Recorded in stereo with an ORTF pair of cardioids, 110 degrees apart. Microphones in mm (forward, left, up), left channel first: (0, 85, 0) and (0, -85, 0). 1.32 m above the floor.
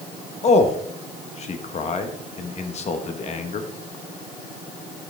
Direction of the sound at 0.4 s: 40° left.